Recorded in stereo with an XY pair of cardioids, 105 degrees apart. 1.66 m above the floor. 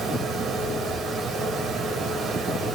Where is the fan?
65° right, 3.5 m.